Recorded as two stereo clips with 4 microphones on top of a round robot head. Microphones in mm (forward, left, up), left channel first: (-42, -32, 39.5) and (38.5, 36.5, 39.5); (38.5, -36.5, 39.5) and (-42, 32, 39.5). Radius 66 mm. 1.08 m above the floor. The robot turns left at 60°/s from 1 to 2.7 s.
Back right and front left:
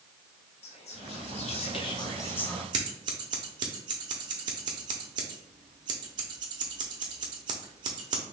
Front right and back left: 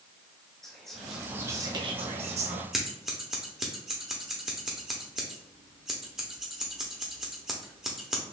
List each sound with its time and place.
0.6 s whispering: 125° right, 0.6 m; by 2.6 s 135° left, 0.6 m
2.7 s scissors: 55° left, 0.6 m